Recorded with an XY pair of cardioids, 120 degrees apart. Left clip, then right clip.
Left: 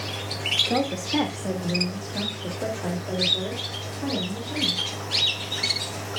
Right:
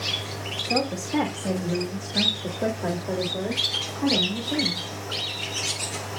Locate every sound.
0.7 s a woman speaking: 5° left, 2.5 m; by 4.9 s 35° right, 5 m